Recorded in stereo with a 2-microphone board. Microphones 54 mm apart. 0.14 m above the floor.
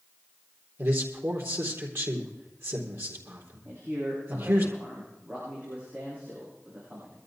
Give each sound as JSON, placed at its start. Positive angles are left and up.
{"t": 0.8, "sound": "a man speaking", "side_deg": -55, "distance_m": 3.5}
{"t": 3.6, "sound": "a man speaking", "side_deg": -30, "distance_m": 7.5}